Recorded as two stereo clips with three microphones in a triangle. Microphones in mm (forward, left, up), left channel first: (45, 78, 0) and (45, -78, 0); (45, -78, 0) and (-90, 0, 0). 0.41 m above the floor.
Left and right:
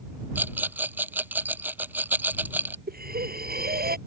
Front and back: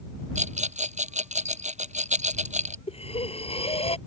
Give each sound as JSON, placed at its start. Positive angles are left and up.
{"t": 0.3, "sound": "a rattle", "azimuth_deg": -170}
{"t": 2.9, "sound": "breathing", "azimuth_deg": -80}